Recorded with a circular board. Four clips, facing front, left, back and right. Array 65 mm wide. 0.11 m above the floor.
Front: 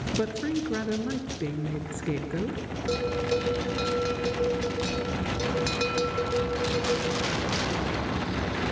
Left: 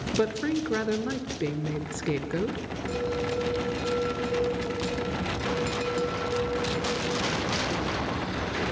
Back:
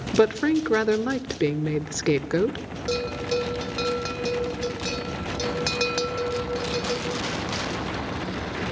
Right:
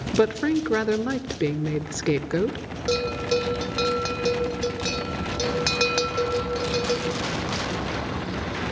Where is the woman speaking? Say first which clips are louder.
Right 6 dB, back 9 dB; 150° right, 1.3 m.